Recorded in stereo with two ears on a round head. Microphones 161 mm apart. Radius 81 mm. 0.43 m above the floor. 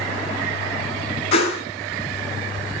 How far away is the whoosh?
About 3 m.